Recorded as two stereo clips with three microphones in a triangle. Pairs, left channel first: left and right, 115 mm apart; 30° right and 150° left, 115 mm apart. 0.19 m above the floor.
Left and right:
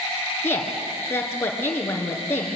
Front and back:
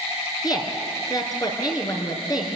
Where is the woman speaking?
20° left, 3 m.